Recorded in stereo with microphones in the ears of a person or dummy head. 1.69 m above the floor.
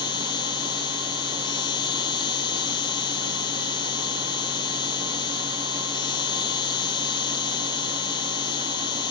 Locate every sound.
0.0 s an insect: 25° left (ahead or behind)